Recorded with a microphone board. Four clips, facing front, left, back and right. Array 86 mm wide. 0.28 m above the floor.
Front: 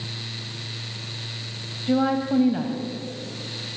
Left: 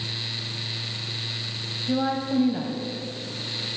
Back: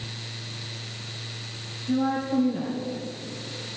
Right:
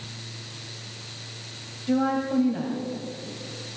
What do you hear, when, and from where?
1.9 s a woman speaking: 15° right, 1.5 m; by 3.8 s 30° left, 2.5 m